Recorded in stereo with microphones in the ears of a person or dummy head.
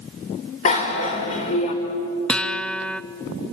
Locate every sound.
0.7 s a bicycle bell: 40° left (ahead or behind), 3.5 m
2.3 s a guitar: 5° left (ahead or behind), 0.6 m